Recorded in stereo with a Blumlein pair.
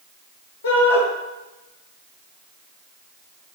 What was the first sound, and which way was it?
A shout, 60° left.